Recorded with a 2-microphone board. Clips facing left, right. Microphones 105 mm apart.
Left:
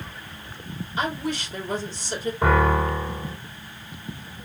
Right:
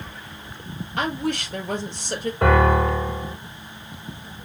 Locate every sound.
1.0 s a woman speaking: 65° right (ahead or behind), 3 m
2.4 s a piano: 65° right (ahead or behind), 3.5 m